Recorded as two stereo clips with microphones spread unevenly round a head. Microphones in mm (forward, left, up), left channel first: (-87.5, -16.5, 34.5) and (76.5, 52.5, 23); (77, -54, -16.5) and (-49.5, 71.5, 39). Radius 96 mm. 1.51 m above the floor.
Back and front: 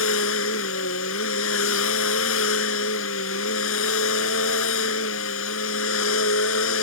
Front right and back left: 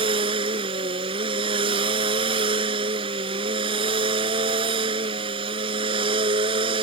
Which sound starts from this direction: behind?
A machine running, at 0.0 s.